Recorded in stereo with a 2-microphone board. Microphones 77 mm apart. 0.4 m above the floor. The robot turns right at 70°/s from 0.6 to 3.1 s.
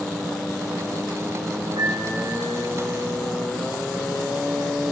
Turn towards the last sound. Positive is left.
turn(degrees=-5)